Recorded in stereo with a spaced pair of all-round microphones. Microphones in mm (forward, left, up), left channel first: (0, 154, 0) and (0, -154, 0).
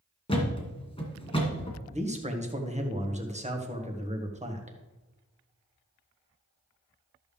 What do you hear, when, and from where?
0.3 s a thud: 15° left (ahead or behind), 2 m
1.9 s a man speaking: 20° right (ahead or behind), 1.5 m